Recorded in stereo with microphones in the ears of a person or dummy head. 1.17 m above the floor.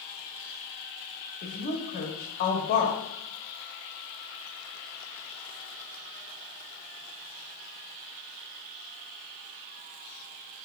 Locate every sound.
1.4 s a woman speaking: 50° left (ahead or behind), 1.4 m